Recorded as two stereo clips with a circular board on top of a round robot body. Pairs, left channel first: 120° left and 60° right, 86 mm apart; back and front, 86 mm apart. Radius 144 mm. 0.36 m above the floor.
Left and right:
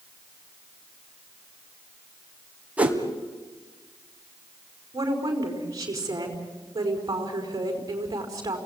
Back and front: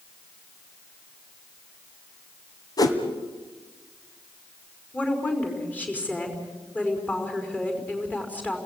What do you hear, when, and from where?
2.8 s a whoosh: 135° right, 2.5 m
4.9 s a woman speaking: 110° right, 5 m